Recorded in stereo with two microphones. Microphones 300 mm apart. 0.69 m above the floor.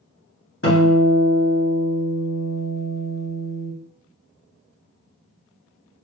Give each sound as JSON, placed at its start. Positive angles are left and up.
{"t": 0.6, "sound": "a guitar", "side_deg": 45, "distance_m": 1.5}